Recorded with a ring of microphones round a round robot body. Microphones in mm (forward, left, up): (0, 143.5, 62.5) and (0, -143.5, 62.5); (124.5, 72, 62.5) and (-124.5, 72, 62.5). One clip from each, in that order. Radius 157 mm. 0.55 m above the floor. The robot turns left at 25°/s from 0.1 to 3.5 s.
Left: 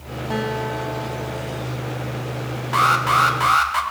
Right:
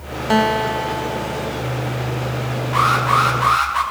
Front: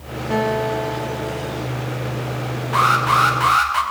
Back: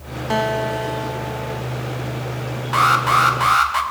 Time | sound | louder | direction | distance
0.3 | a guitar | right 8 dB, even | 125° right | 1.3 m
2.7 | an alarm | right 1 dB, back 1 dB | 135° left | 4.5 m